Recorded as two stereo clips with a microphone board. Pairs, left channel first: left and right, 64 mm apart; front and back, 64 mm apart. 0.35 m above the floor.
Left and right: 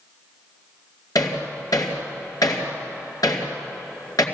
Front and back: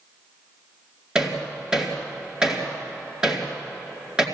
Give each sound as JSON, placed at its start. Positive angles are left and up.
{"t": 1.1, "sound": "hammering", "azimuth_deg": 100, "distance_m": 4.0}